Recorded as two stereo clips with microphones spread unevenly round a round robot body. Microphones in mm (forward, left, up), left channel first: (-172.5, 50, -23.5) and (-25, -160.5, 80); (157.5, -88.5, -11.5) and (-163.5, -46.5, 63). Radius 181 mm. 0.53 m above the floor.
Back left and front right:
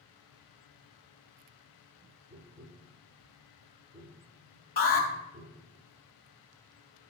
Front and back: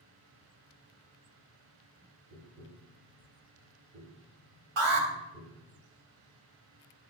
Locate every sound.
2.3 s tapping: 115° right, 5 m
4.8 s an alarm: 170° left, 3 m